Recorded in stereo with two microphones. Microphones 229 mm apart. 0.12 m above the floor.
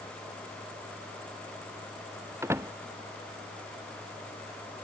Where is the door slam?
10° right (ahead or behind).